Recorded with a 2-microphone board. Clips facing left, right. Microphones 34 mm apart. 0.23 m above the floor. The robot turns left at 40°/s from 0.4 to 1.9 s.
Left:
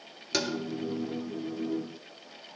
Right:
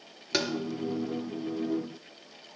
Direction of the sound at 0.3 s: 10° right (ahead or behind).